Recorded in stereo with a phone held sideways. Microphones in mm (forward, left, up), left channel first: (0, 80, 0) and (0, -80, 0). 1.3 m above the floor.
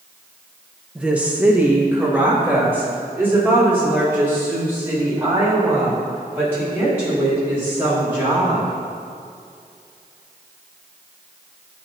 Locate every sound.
0.9 s a woman speaking: 5° right (ahead or behind), 1.1 m; by 8.8 s 15° right (ahead or behind), 10.5 m